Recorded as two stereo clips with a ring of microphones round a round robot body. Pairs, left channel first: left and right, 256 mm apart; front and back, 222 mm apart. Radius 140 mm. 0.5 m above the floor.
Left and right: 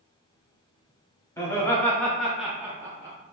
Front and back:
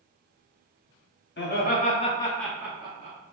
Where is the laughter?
15° left, 0.9 m; by 3.2 s 160° right, 0.8 m.